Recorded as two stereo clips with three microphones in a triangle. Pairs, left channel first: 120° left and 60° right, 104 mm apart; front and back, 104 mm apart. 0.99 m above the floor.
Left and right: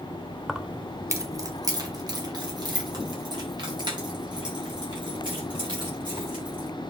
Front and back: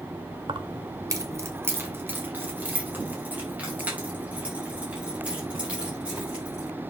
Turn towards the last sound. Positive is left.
turn(degrees=-105)